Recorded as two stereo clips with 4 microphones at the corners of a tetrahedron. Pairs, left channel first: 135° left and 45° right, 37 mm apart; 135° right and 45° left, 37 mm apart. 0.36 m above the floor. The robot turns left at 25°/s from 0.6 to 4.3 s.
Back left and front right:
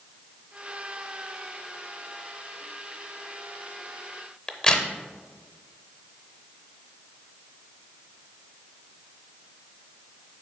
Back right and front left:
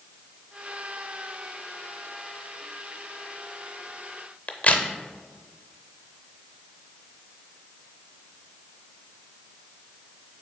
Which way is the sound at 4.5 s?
160° right.